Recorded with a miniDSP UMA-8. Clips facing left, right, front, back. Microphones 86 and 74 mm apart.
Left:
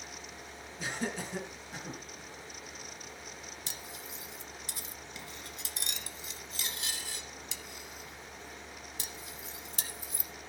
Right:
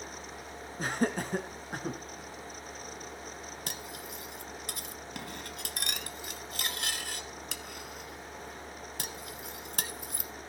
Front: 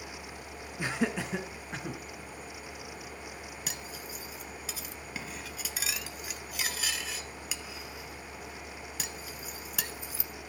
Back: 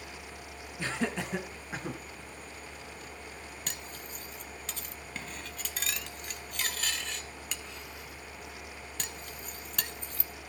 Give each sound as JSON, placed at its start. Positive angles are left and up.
{"t": 0.8, "sound": "laughter", "azimuth_deg": -70, "distance_m": 2.0}
{"t": 3.7, "sound": "cutlery clinking", "azimuth_deg": -80, "distance_m": 1.1}